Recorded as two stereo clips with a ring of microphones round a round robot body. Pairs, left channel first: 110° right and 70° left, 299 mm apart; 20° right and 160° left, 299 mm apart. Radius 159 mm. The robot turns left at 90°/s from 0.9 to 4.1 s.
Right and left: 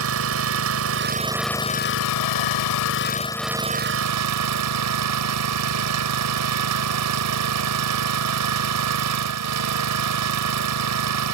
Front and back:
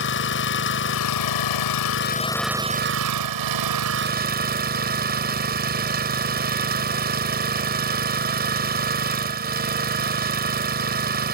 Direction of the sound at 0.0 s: 25° left.